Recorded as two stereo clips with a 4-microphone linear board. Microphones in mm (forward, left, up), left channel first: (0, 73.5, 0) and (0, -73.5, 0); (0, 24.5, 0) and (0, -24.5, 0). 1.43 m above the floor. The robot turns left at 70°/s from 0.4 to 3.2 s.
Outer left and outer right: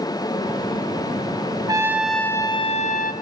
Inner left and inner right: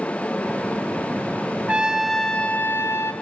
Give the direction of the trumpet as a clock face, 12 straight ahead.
5 o'clock.